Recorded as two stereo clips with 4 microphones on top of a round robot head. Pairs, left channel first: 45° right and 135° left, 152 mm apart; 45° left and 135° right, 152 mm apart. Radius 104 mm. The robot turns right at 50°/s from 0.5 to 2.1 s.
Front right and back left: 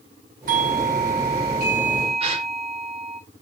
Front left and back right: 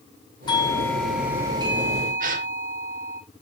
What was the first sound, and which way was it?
A doorbell, 105° left.